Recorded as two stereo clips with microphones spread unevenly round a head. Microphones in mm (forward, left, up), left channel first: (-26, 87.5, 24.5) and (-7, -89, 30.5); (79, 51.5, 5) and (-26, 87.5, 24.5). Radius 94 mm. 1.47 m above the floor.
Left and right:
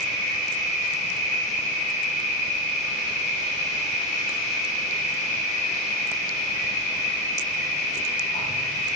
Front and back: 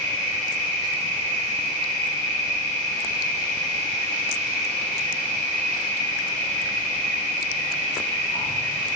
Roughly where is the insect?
Behind left.